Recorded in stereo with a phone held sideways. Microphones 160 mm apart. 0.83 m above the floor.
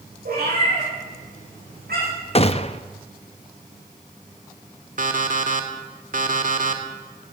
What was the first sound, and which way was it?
A cat meowing, 75° right (ahead or behind).